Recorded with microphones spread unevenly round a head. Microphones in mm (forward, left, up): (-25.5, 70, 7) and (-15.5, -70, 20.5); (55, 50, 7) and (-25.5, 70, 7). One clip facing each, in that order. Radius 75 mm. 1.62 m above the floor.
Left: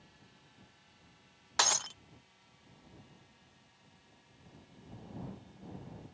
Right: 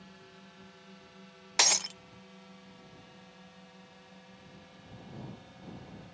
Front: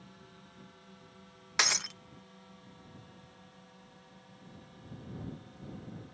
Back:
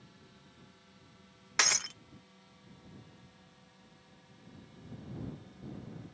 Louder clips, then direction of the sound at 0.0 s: Right 9 dB, front 4 dB; 75° right.